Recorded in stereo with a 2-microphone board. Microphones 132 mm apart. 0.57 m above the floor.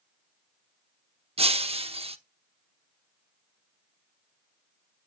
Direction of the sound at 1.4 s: 50° right (ahead or behind).